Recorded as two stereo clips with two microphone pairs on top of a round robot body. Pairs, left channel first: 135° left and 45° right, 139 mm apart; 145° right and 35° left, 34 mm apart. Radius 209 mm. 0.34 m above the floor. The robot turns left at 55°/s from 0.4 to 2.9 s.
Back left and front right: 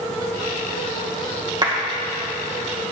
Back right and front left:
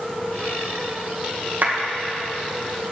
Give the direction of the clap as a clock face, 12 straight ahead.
12 o'clock.